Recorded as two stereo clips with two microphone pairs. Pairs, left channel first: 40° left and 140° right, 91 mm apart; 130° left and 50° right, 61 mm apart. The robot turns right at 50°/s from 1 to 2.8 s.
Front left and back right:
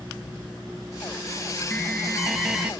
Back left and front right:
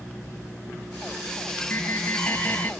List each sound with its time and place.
1.7 s an alarm: 90° left, 0.7 m; by 2.7 s 140° left, 0.7 m